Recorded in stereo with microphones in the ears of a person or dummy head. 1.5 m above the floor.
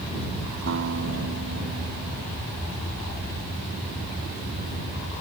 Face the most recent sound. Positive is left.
turn(degrees=-60)  # may be behind; listen again after turning